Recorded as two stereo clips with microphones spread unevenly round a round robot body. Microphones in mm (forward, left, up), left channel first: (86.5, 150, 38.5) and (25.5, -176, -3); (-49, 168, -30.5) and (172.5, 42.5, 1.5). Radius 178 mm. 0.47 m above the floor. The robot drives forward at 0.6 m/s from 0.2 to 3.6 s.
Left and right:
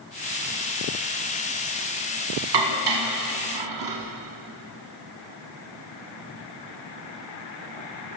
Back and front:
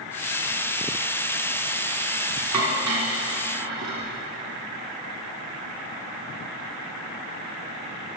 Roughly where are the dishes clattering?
Right.